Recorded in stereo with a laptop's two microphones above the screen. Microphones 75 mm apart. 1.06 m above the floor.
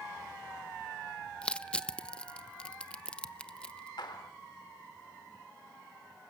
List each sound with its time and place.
1.4 s crushing: 15° left (ahead or behind), 0.9 m
4.0 s a clap: 80° left, 2.5 m